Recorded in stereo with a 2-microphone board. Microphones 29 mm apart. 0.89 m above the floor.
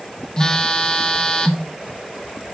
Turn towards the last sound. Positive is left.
turn(degrees=25)  # may be behind; listen again after turning